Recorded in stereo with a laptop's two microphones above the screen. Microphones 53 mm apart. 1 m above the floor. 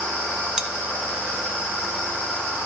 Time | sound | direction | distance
0.6 | cutlery clinking | 10° right (ahead or behind) | 0.5 m